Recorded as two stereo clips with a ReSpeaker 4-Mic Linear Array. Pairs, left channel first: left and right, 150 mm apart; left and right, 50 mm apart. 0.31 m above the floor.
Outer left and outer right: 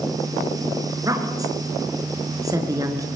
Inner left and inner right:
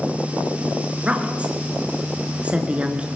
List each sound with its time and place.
1.0 s a woman speaking: 25° right (ahead or behind), 5 m